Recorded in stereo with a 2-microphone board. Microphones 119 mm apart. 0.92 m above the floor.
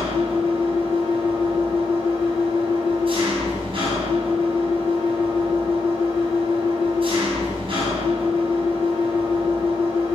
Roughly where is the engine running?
Right.